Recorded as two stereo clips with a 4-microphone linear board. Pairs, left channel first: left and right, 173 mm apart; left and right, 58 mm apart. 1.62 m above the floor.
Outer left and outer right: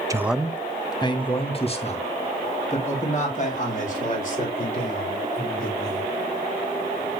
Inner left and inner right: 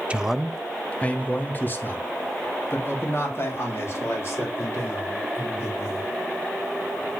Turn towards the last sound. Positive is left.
turn(degrees=50)  # may be behind; listen again after turning